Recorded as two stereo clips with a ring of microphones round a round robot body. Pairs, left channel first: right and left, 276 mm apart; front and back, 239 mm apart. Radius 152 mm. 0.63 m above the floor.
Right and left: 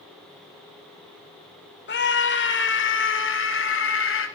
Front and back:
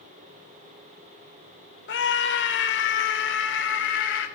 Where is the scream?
40° right, 3 m; by 4.3 s 45° right, 5 m.